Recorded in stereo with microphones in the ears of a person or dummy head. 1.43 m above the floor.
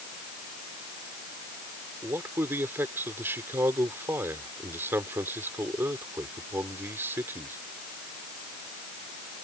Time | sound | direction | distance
2.0 | a man speaking | 15° right (ahead or behind) | ?